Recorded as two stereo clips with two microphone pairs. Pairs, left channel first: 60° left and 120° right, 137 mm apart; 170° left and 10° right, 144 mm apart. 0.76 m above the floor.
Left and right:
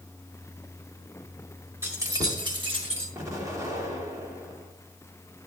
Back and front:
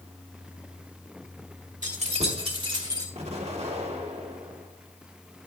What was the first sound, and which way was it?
Keys jangling, 45° right.